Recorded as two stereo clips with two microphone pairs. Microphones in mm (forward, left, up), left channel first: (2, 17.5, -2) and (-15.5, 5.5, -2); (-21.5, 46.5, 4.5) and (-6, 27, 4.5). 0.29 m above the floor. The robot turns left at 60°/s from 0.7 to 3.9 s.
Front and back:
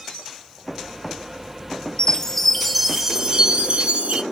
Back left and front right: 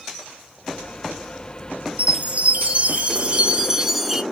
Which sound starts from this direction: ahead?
A chime, at 2.0 s.